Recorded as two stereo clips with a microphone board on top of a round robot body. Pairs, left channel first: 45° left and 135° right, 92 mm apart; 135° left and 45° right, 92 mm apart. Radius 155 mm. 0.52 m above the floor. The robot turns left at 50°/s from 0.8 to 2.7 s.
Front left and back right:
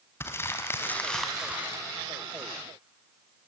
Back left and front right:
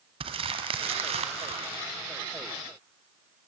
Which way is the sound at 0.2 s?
20° right.